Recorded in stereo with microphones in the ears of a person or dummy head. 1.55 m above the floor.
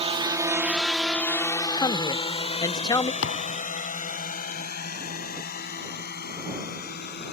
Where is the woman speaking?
20° left (ahead or behind).